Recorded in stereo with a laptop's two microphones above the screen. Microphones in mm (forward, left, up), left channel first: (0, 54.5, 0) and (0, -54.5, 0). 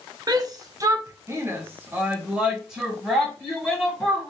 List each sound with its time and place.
0.3 s a shout: 35° right (ahead or behind), 0.8 m; by 4.3 s 5° left (ahead or behind), 1.9 m